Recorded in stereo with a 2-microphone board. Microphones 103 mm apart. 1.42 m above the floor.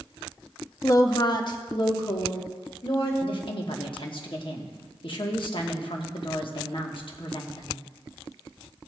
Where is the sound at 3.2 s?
55° left (ahead or behind), 1.2 m.